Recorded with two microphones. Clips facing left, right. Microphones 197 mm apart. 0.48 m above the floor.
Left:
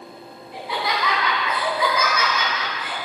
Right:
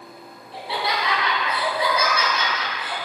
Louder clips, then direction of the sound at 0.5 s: Even; 30° right (ahead or behind).